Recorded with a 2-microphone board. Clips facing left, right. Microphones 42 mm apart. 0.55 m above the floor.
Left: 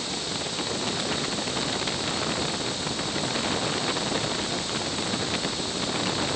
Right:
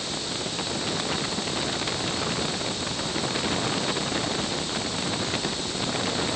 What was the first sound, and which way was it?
Only background noise.